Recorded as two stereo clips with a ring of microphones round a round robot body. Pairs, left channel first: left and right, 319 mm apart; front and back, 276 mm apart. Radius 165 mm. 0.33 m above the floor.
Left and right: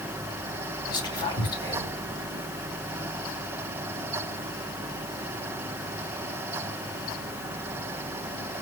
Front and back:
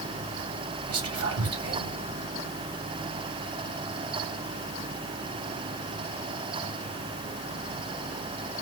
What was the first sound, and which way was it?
Whispering, 165° left.